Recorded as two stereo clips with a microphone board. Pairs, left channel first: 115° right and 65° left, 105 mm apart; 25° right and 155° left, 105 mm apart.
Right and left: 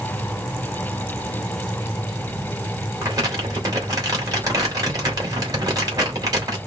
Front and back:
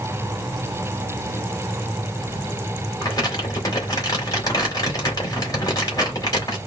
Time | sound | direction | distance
3.0 | crumpling | 20° left | 2.5 m